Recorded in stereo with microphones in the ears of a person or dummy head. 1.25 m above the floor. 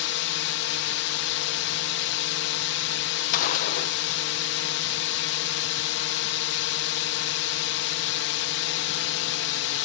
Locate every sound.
0.0 s a drone: 60° left (ahead or behind)
3.3 s a gunshot: 45° left (ahead or behind)